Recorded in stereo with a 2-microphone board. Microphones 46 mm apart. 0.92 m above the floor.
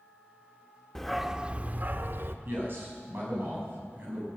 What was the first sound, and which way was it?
A dog barking, 10° left (ahead or behind).